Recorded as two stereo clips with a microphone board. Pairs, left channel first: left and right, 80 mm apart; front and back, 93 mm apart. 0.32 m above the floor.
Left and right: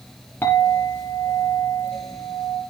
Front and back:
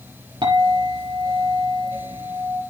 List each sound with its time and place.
0.4 s a clink: 150° left, 5 m